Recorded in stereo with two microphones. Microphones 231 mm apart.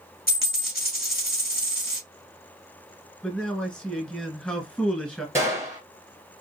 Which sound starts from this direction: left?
A dropped coin, at 0.3 s.